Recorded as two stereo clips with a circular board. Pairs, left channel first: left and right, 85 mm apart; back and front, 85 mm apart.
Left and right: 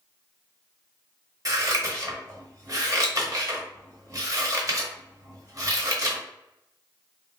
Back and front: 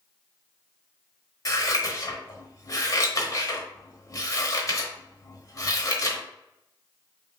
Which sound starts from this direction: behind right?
Scissors, at 1.4 s.